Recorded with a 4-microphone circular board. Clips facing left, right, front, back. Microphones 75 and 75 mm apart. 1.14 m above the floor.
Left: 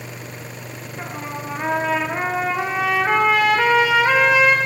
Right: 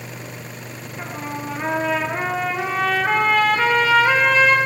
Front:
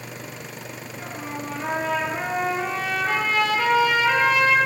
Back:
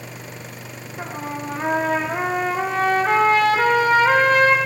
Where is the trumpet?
170° left, 0.9 m.